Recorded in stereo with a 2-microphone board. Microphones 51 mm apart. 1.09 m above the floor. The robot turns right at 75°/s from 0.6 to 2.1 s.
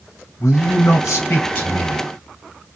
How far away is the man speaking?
About 0.9 m.